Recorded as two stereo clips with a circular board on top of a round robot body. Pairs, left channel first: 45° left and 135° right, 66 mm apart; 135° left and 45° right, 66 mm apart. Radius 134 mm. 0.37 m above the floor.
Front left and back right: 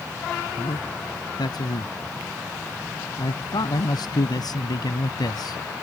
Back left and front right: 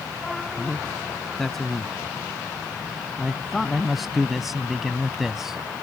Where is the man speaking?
50° left; by 5.6 s 35° left.